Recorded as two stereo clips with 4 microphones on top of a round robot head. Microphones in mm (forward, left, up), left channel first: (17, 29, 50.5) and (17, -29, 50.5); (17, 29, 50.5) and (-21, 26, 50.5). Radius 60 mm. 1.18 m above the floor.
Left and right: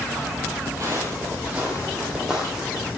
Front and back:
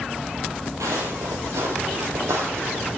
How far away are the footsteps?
About 1.5 m.